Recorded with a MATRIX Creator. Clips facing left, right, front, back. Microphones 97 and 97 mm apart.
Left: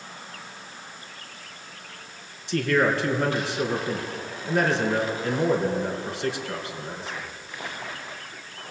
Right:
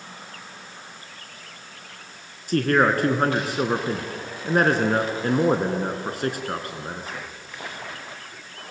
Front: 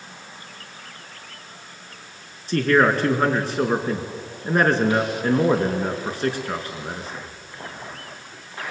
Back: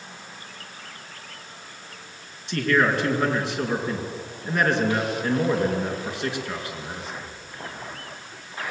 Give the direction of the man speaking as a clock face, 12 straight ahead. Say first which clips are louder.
Right 3 dB, front 4 dB; 2 o'clock.